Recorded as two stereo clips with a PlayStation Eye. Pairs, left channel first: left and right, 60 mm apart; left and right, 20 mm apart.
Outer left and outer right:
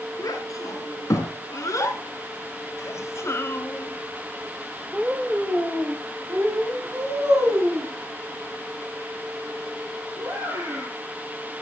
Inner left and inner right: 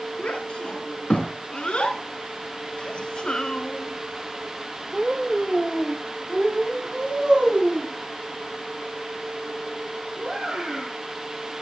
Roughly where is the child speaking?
Left.